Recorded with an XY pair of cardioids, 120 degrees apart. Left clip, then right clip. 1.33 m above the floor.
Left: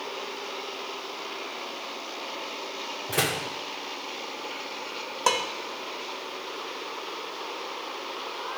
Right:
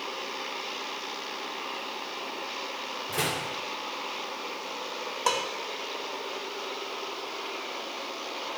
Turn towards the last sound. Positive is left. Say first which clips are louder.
# left 3 dB
turn(degrees=20)